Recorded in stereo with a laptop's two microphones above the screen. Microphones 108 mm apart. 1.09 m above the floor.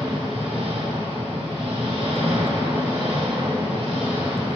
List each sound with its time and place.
0.0 s an engine running: 70° right (ahead or behind), 2.5 m